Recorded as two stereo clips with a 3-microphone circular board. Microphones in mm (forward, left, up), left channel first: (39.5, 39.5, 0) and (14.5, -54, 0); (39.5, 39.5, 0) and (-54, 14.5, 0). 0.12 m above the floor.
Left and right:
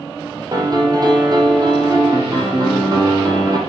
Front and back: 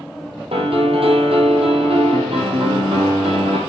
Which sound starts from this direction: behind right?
A piano, at 0.5 s.